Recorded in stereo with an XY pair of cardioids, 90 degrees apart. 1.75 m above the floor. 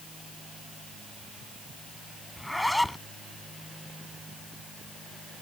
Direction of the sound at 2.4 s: 10° left.